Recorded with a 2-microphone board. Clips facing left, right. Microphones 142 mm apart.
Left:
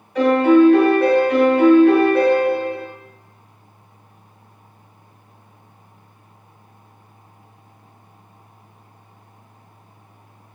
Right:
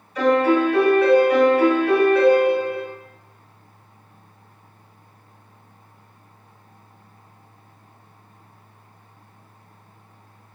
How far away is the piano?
About 1.5 m.